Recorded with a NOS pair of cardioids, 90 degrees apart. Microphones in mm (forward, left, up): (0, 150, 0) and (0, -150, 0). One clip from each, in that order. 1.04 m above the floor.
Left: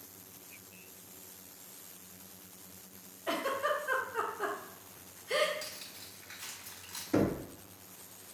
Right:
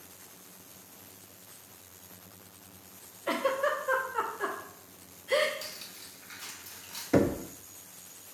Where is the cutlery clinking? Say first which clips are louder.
Right 2 dB; 5° right, 1.7 m.